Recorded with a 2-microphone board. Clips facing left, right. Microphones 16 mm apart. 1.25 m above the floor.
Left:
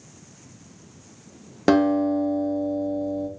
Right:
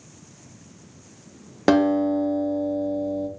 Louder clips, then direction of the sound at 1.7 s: Even; 5° right (ahead or behind).